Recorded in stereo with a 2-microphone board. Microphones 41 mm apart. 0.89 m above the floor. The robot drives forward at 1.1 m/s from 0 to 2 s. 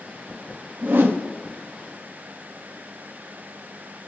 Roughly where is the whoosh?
Right.